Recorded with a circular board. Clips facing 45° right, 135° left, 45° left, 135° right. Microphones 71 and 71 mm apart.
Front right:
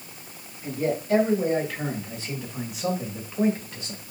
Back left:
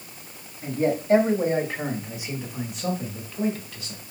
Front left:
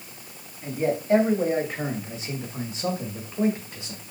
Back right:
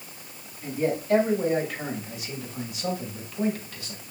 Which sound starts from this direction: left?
A man speaking, at 0.6 s.